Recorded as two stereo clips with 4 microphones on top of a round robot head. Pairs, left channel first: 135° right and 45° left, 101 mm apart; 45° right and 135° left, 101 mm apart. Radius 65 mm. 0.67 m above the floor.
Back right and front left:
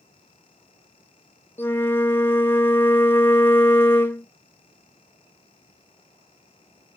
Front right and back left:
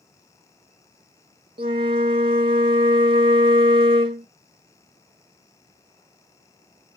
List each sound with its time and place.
1.6 s a flute: 160° left, 0.6 m